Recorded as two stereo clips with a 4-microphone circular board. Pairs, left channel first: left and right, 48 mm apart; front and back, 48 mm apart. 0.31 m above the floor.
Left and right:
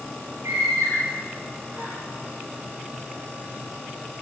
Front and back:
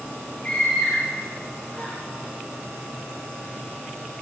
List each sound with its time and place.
0.4 s a scream: 70° right, 7.5 m; by 1.9 s 65° right, 6.5 m